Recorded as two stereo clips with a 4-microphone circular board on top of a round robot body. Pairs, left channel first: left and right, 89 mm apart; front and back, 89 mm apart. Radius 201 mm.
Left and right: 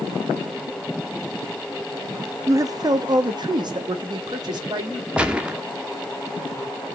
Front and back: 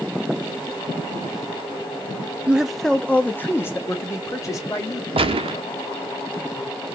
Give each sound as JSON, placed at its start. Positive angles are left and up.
{"t": 2.5, "sound": "a man speaking", "azimuth_deg": -115, "distance_m": 0.6}
{"t": 5.2, "sound": "a gunshot", "azimuth_deg": -170, "distance_m": 0.6}